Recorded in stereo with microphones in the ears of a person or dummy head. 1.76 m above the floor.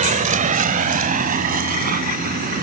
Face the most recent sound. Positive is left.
turn(degrees=-50)  # may be behind; listen again after turning